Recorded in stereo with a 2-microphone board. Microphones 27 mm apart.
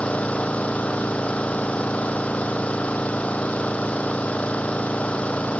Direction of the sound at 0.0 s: 70° left (ahead or behind).